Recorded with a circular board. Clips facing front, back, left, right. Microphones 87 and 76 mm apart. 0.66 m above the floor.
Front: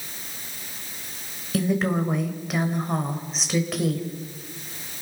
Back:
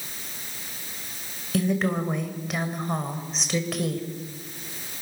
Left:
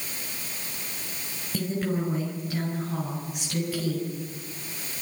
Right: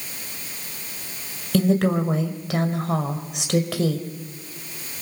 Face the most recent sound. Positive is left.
turn(degrees=-90)